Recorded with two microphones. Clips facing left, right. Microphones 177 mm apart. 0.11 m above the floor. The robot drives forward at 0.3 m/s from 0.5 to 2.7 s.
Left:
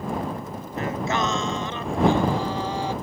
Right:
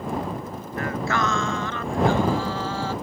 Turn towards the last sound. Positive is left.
turn(degrees=20)  # may be behind; listen again after turning